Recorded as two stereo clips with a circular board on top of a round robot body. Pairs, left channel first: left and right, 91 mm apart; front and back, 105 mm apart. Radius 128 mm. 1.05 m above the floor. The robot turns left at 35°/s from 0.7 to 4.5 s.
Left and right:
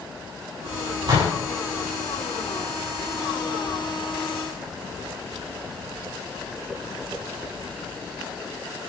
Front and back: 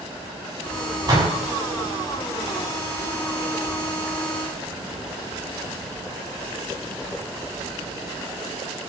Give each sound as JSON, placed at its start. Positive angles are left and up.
{"t": 1.1, "sound": "a door slam", "azimuth_deg": -130, "distance_m": 8.5}